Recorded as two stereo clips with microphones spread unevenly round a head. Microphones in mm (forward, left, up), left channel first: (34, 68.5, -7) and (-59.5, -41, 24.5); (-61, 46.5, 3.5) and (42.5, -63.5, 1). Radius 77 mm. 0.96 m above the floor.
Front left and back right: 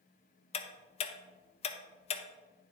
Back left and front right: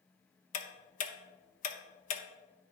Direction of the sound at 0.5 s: 100° left.